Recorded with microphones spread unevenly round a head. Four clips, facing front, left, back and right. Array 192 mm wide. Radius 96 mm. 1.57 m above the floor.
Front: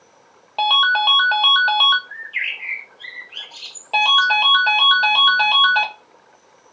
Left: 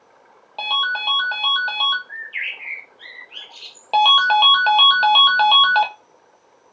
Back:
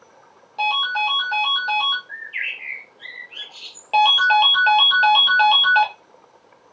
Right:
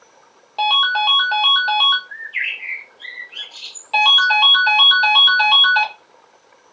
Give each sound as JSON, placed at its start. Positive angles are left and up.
{"t": 0.6, "sound": "a ringtone", "azimuth_deg": -15, "distance_m": 0.8}
{"t": 2.1, "sound": "a bird", "azimuth_deg": 90, "distance_m": 1.2}
{"t": 3.9, "sound": "a ringtone", "azimuth_deg": 110, "distance_m": 0.7}